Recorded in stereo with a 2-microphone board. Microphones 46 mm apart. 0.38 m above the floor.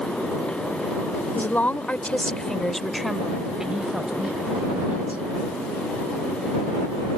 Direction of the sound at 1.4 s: 45° left (ahead or behind).